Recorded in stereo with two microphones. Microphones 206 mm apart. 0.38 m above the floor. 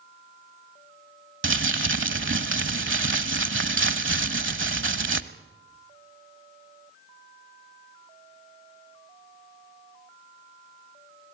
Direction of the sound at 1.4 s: 75° right (ahead or behind).